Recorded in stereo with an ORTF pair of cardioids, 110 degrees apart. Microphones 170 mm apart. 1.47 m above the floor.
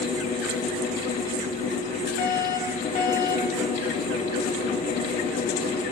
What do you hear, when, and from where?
0.0 s a fan: 55° left, 3.5 m
2.2 s a fire alarm: 60° left, 4 m